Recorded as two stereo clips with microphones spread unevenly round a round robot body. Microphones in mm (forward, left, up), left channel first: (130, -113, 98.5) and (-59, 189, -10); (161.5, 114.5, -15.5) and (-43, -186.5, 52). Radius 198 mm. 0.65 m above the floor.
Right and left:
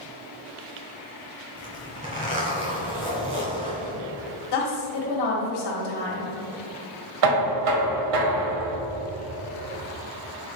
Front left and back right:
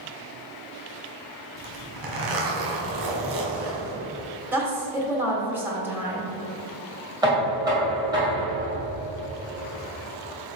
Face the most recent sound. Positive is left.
turn(degrees=155)